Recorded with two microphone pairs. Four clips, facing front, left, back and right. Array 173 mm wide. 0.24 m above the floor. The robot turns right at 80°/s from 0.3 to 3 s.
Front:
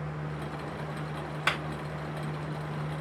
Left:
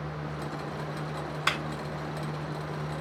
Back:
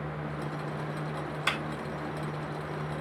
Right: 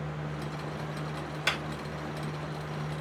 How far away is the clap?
About 1.6 m.